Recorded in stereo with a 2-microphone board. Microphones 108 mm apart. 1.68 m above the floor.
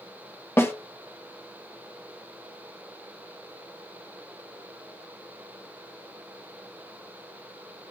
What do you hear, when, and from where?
0.6 s a snare drum: 25° left (ahead or behind), 1.3 m